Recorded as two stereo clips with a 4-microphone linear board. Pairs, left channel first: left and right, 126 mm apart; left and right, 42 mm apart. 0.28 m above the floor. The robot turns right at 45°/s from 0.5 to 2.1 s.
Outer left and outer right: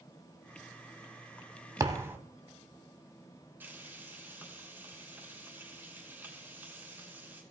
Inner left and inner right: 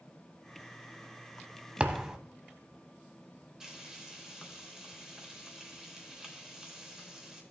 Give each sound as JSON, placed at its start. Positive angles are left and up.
{"t": 1.8, "sound": "a thud", "side_deg": -30, "distance_m": 0.8}
{"t": 3.6, "sound": "frying", "side_deg": -15, "distance_m": 3.0}